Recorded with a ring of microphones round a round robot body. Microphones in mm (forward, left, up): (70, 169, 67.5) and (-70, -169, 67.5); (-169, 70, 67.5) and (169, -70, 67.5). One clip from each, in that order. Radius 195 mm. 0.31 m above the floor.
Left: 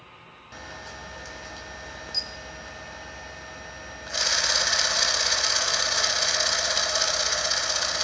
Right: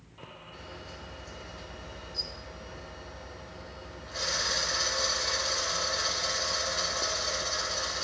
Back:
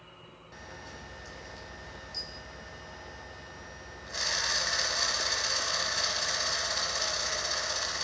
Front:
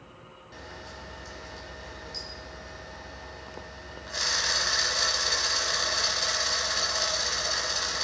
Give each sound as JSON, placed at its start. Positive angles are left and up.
{"t": 0.5, "sound": "a camera shutter", "azimuth_deg": 65, "distance_m": 0.9}